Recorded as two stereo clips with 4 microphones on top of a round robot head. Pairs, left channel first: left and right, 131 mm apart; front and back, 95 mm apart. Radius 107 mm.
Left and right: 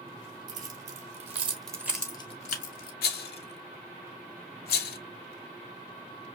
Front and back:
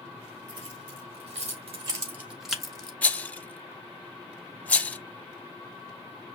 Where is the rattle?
75° left, 0.6 m.